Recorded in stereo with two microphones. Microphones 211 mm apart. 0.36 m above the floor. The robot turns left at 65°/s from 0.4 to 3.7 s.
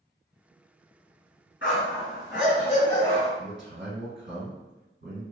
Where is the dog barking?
105° left, 1.6 m; by 3.3 s 5° right, 1.6 m.